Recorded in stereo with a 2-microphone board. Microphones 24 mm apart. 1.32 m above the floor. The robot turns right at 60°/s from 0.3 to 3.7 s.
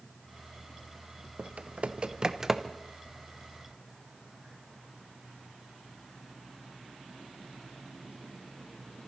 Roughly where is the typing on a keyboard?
Right.